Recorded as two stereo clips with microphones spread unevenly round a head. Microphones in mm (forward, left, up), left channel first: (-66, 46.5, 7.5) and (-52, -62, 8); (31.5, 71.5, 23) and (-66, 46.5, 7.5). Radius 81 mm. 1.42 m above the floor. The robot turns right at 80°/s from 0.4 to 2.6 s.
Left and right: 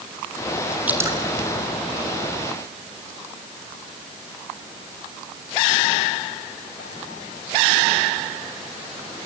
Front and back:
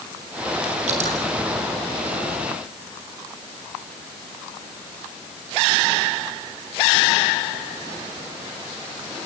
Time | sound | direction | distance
0.9 | dripping | 160° right | 4 m